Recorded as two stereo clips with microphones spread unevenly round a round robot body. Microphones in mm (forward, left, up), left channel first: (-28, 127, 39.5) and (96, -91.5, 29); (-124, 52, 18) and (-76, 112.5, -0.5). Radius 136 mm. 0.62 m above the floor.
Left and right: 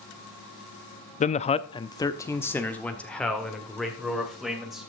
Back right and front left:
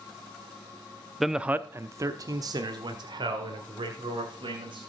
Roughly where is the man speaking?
Left.